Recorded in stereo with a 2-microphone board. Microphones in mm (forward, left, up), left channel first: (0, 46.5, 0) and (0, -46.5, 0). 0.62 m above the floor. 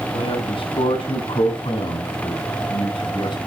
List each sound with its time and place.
0.1 s a man speaking: 80° left, 6 m; by 3.4 s 60° left (ahead or behind), 4.5 m